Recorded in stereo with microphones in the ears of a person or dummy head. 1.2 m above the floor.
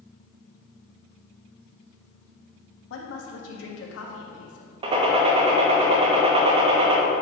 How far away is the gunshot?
About 0.9 m.